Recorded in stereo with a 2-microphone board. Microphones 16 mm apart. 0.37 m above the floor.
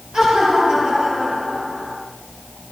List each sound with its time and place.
0.1 s laughter: 60° right (ahead or behind), 9 m; by 1.9 s 65° right (ahead or behind), 11 m